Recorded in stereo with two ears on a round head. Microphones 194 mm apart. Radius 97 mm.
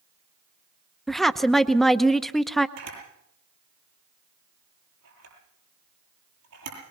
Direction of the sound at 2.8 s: 85° right.